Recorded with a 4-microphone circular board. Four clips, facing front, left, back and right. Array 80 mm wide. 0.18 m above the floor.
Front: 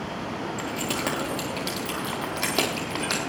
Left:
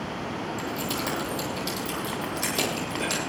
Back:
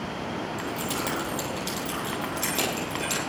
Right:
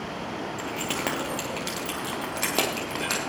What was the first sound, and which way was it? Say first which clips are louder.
Keys jangling: right 2 dB, front 1 dB; 75° right.